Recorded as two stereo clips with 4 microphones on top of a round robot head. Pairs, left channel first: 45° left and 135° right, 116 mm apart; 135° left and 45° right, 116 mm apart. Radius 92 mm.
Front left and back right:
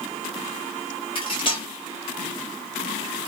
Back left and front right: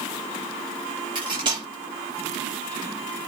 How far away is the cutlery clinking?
About 1.0 m.